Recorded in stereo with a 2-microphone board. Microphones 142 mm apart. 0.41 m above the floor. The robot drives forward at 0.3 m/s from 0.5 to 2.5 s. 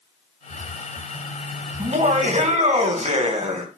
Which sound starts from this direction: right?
Laughter, at 1.8 s.